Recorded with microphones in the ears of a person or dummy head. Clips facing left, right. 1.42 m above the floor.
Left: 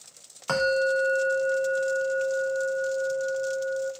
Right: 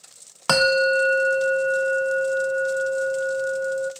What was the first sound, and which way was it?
A bell, 70° right (ahead or behind).